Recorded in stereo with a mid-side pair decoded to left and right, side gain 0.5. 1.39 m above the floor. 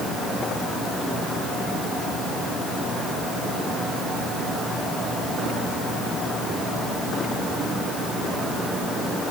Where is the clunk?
No clunk in this recording.